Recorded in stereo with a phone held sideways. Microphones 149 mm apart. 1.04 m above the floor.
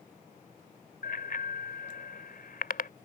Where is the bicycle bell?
85° left.